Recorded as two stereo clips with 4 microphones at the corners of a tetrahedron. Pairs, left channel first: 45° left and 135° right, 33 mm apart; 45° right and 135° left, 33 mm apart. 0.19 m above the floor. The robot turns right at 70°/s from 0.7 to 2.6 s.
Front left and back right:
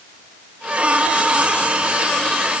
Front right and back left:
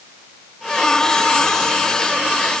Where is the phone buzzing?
I don't hear a phone buzzing.